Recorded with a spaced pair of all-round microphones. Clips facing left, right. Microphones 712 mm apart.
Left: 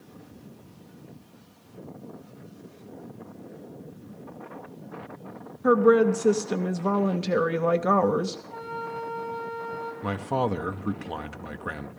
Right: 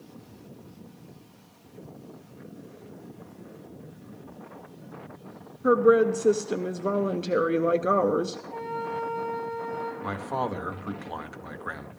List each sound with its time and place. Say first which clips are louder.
5.6 s a woman speaking: left 1 dB; 30° left (ahead or behind), 0.6 m
8.5 s a flute: right 3 dB; 50° right (ahead or behind), 3 m
10.0 s a man speaking: left 9 dB; 60° left (ahead or behind), 0.7 m